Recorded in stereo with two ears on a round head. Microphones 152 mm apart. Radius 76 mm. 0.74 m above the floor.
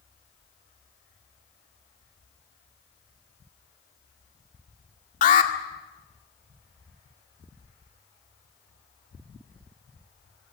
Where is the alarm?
50° left (ahead or behind), 2 m.